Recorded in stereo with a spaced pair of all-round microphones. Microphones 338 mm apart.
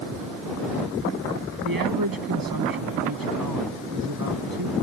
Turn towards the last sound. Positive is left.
turn(degrees=-90)